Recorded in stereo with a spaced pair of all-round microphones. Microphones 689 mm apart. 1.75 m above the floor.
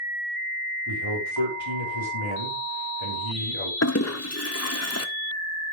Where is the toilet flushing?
20° left (ahead or behind), 1.1 m.